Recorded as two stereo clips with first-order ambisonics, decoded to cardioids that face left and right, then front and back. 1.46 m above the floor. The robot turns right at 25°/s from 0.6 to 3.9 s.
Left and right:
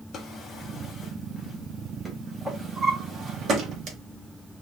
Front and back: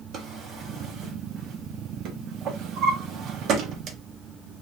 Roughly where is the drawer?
Behind left.